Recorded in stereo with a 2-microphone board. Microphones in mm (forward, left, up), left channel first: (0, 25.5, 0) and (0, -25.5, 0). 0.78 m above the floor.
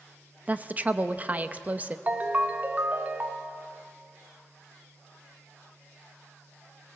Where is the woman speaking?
30° right (ahead or behind), 0.7 m.